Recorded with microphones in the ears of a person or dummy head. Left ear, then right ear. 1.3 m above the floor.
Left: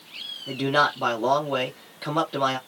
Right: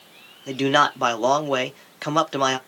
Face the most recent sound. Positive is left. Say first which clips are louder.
# right 3 dB
turn(degrees=-55)  # may be behind; listen again after turning